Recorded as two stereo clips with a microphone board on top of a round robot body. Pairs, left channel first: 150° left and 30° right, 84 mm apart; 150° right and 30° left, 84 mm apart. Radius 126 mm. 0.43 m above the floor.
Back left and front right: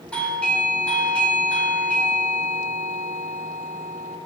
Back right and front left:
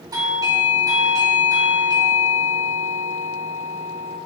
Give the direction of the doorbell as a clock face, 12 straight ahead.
10 o'clock.